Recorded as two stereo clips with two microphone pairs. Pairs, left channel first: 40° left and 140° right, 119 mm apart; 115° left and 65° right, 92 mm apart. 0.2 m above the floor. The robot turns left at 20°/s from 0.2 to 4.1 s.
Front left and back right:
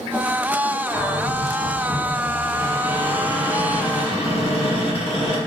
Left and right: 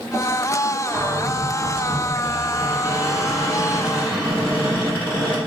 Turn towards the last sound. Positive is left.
turn(degrees=40)